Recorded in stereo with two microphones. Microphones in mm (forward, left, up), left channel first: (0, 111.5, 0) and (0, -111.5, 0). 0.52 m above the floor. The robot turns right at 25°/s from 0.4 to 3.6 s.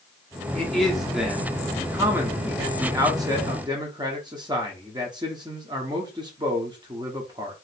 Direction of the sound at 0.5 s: 5° left (ahead or behind).